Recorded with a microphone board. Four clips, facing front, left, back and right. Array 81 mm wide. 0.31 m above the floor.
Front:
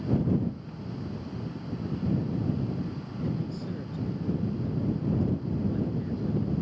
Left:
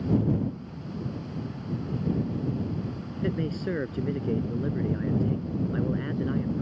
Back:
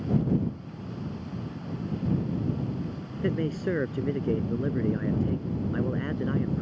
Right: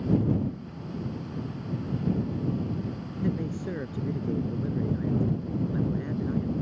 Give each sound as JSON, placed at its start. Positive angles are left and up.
{"t": 3.1, "sound": "a man speaking", "azimuth_deg": 160}